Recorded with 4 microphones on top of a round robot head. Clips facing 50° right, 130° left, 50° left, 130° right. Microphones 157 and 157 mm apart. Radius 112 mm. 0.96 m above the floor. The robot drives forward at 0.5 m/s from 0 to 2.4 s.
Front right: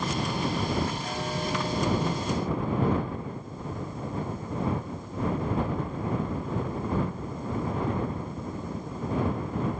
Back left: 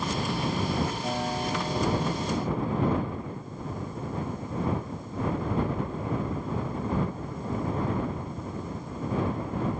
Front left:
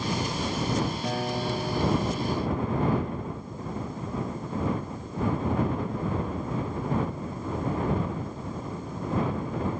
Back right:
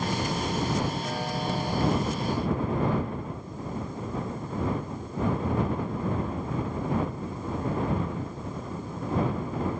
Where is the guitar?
60° left, 5 m; by 3.2 s 65° left, 4.5 m.